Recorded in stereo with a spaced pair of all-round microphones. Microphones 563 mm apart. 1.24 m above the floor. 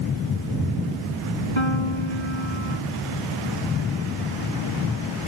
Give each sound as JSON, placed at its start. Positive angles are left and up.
{"t": 1.6, "sound": "a piano", "side_deg": 55}